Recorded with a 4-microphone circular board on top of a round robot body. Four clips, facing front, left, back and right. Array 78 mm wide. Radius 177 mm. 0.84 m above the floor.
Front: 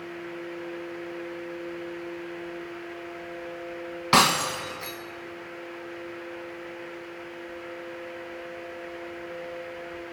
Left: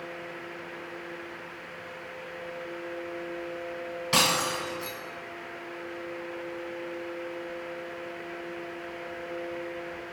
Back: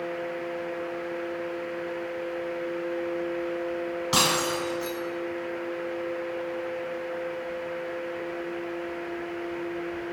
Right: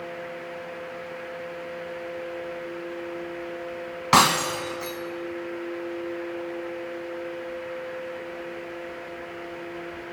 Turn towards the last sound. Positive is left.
turn(degrees=-65)